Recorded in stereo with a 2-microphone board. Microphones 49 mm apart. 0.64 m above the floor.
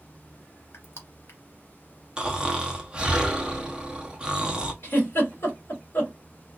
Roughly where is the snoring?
Right.